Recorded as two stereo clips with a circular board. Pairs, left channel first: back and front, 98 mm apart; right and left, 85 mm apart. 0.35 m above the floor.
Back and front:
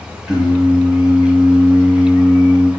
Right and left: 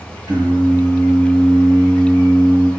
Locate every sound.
0.3 s singing: 85° left, 2 m